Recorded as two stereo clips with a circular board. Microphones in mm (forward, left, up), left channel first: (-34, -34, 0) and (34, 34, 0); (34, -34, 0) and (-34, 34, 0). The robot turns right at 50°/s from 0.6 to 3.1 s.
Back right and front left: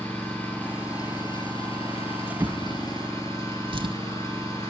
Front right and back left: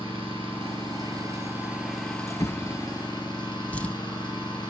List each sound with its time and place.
0.0 s an engine running: 155° left, 4 m; by 4.7 s 80° right, 4 m
2.4 s a drawer: 5° right, 0.6 m; by 3.9 s 30° left, 0.6 m